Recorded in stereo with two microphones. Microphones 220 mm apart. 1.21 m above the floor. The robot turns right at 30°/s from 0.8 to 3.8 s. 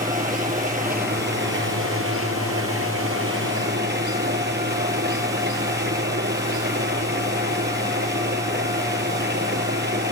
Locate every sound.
0.0 s an engine running: 140° right; by 10.1 s 50° right